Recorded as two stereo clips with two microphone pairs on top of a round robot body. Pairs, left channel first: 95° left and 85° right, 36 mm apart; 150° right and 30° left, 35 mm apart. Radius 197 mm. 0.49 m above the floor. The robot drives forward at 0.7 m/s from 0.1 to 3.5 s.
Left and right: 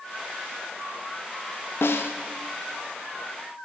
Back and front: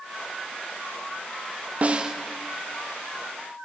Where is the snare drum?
85° left, 0.6 m; by 2.1 s 110° left, 0.7 m.